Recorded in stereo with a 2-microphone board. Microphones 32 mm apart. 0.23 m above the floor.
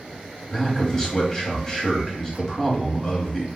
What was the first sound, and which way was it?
A man speaking, 20° left (ahead or behind).